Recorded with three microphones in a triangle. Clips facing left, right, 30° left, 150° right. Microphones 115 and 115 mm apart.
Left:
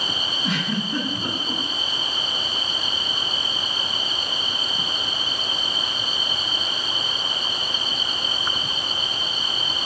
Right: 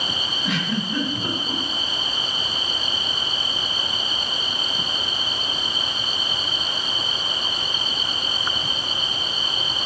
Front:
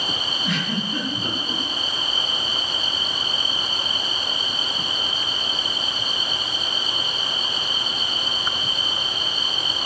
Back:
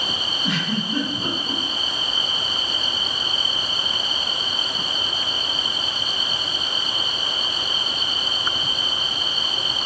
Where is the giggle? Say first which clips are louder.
Right 1 dB, back 2 dB; 160° left, 1.8 m.